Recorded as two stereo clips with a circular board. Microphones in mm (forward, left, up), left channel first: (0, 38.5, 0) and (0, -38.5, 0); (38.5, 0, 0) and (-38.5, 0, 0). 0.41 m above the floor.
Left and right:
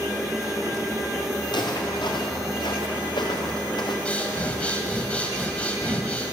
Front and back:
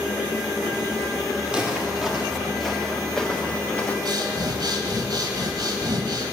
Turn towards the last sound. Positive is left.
turn(degrees=160)